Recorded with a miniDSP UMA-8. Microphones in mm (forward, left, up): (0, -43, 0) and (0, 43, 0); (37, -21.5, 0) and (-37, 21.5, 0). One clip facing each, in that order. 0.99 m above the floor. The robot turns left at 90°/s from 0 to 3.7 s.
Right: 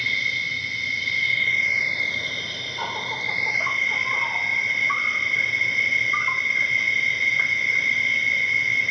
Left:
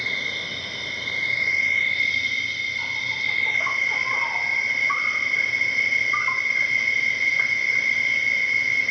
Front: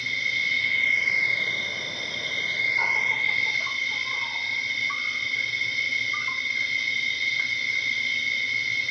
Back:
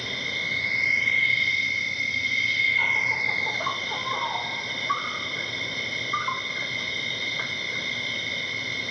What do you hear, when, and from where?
0.0 s an insect: 150° left; by 8.9 s 175° left